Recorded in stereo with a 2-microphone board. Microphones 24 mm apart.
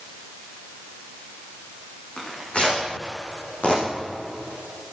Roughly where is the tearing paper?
Left.